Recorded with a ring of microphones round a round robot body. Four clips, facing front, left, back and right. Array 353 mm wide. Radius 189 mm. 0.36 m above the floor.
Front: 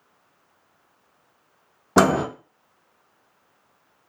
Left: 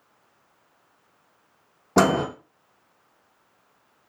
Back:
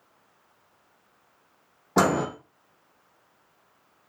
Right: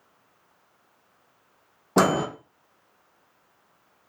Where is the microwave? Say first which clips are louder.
Left 1 dB, front 4 dB; 5° left, 0.7 m.